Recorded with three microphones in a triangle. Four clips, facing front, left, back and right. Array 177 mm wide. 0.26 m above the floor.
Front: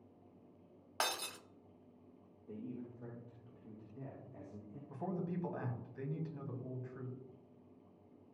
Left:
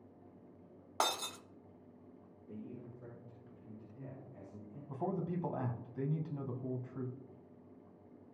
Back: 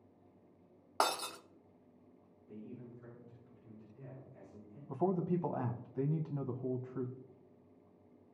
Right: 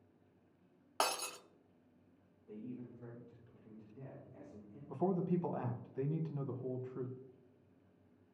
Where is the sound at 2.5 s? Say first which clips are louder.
Right 1 dB, front 3 dB; 10° left, 7 m.